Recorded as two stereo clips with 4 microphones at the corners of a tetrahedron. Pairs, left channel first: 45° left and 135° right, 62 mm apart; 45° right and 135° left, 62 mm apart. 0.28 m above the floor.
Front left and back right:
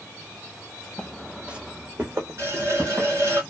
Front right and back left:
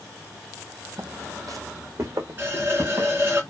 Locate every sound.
1.0 s footsteps: 125° left, 0.5 m; by 3.1 s straight behind, 1.5 m
2.4 s a running tap: 175° right, 1.7 m